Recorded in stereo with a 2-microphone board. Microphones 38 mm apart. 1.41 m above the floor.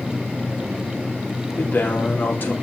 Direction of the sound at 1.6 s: 60° left (ahead or behind).